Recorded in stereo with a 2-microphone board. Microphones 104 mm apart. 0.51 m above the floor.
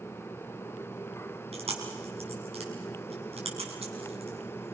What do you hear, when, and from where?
1.5 s chewing: 80° right, 5 m